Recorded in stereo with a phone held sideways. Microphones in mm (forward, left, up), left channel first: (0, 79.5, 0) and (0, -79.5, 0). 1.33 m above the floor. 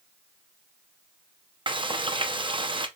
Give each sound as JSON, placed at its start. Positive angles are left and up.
{"t": 1.7, "sound": "frying", "side_deg": -30, "distance_m": 0.6}